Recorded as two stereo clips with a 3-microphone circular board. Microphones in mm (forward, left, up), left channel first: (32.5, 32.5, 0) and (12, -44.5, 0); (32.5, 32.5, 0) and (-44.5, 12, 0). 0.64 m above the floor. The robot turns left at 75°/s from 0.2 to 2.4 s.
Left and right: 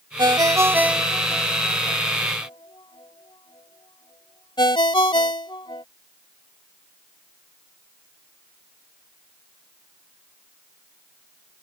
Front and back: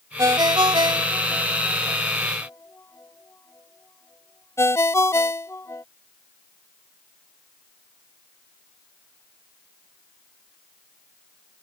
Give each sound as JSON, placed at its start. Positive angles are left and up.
{"t": 0.2, "sound": "a ringtone", "azimuth_deg": -125}